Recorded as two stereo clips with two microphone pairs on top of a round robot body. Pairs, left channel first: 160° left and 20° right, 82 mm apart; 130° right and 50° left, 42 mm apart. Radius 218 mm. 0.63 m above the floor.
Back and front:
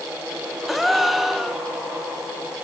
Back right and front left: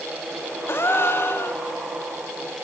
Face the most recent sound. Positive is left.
turn(degrees=-105)